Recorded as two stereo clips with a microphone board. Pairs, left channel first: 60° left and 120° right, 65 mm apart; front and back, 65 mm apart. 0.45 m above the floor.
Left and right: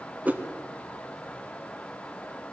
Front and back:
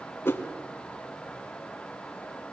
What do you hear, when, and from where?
0.2 s a whoosh: 55° right, 1.3 m